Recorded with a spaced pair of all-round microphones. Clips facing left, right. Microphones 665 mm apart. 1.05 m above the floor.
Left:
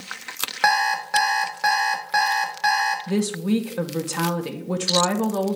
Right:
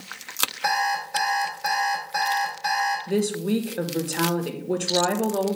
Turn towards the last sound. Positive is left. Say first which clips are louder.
# left 1 dB
turn(degrees=35)  # may be behind; listen again after turning